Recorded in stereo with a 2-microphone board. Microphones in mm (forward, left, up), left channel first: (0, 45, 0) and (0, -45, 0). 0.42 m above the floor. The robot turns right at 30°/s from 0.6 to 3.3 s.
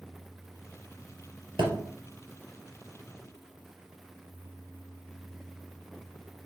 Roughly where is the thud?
Right.